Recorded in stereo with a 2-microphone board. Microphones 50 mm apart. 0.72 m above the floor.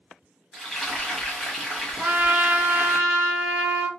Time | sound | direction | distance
0.5 | frying | 10° left (ahead or behind) | 1.3 m
2.0 | a trumpet | 40° right (ahead or behind) | 0.7 m